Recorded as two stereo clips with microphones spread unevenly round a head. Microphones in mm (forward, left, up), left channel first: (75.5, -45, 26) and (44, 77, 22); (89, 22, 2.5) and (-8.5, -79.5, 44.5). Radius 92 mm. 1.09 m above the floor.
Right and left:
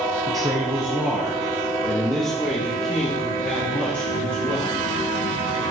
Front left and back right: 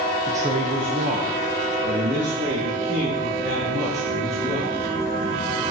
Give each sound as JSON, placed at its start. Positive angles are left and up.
{"t": 0.3, "sound": "a man speaking", "azimuth_deg": 140, "distance_m": 0.8}